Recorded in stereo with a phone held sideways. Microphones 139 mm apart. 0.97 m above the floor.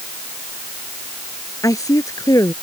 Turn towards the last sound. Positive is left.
turn(degrees=25)  # may be behind; listen again after turning